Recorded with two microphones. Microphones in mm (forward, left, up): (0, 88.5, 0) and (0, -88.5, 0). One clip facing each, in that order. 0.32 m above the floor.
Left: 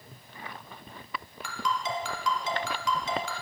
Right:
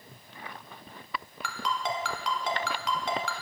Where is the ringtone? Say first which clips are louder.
Left 1 dB; 65° right (ahead or behind), 1.7 m.